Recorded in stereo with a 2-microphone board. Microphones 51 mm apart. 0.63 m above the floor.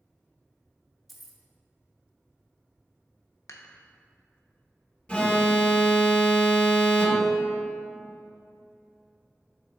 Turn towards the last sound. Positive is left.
turn(degrees=25)  # may be behind; listen again after turning